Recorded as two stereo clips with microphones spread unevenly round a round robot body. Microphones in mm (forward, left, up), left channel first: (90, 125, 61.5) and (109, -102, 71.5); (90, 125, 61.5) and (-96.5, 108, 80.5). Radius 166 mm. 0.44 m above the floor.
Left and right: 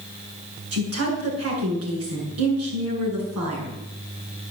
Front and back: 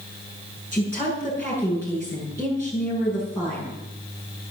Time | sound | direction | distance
0.7 | a woman speaking | 75° right | 8.5 m